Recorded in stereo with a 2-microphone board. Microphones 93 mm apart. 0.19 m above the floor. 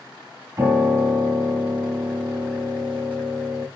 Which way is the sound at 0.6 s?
25° right (ahead or behind).